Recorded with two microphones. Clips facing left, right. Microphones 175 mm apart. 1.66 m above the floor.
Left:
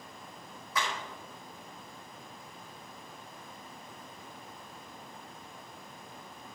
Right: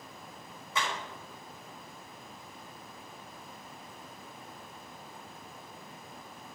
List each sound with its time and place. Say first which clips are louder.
0.8 s a clap: even; 25° right (ahead or behind), 4.5 m